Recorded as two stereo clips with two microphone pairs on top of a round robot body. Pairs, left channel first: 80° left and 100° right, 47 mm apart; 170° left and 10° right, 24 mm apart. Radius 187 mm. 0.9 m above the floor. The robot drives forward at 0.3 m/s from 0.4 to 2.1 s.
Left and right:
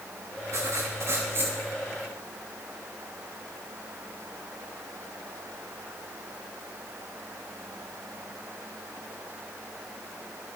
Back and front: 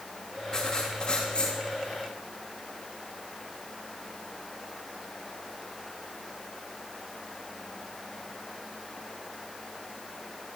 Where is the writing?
125° right, 0.7 m; by 1.6 s 140° right, 0.9 m.